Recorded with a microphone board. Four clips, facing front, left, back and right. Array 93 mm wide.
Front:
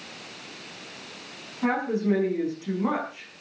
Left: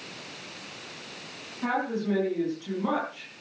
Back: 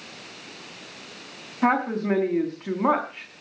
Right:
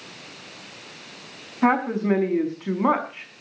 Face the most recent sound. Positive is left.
turn(degrees=-130)